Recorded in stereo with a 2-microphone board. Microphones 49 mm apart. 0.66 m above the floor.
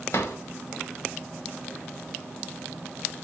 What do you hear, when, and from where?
0.1 s a drawer: 70° left (ahead or behind), 1.0 m